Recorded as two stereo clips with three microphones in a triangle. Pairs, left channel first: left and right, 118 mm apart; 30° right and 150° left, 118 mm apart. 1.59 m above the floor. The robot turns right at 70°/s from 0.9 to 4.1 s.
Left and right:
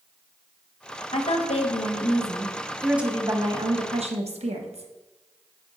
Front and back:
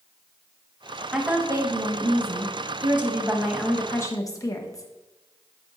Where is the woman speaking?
65° left, 0.8 m; by 4.9 s 90° right, 0.8 m.